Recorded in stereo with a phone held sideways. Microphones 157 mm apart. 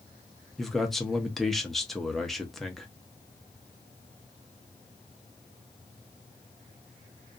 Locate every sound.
0.6 s a man speaking: centre (ahead or behind), 0.7 m